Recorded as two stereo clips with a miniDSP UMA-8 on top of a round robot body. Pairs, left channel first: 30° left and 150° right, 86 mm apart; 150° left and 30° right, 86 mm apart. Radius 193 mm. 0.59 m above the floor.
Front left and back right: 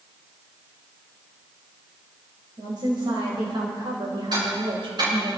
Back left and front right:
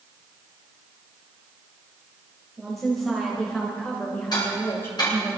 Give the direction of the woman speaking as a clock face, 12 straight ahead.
4 o'clock.